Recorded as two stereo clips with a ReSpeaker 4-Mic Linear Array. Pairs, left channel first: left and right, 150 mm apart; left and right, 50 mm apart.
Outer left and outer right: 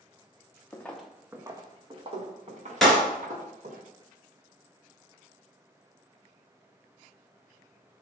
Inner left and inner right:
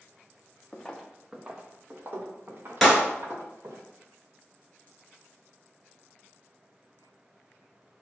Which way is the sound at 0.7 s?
15° left (ahead or behind).